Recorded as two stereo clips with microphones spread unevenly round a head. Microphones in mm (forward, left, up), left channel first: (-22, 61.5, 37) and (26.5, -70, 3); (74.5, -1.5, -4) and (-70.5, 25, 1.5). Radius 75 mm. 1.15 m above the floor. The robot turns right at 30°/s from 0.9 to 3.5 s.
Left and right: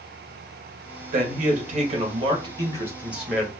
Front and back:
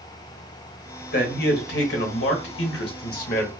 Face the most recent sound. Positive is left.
turn(degrees=20)